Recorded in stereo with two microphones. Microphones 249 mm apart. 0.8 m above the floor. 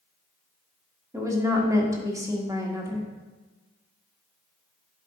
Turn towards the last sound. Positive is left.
turn(degrees=-15)  # may be behind; listen again after turning